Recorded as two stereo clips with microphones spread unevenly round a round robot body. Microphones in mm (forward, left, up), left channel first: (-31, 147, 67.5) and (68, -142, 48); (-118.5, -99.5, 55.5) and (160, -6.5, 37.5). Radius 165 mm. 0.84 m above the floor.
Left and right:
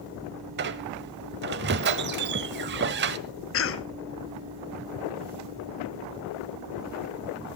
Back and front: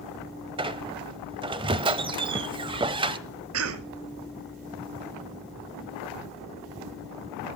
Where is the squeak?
45° right, 0.7 m.